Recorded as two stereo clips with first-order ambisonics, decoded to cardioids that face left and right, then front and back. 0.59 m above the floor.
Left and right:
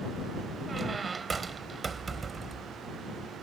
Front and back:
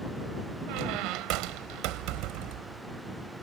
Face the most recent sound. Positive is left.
turn(degrees=-160)